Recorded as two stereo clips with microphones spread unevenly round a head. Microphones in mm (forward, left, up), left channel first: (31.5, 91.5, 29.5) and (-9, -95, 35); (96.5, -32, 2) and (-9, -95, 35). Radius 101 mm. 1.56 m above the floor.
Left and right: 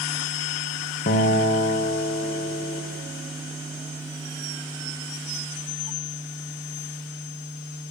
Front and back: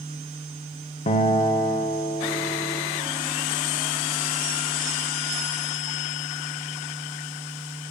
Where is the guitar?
70° left, 0.6 m.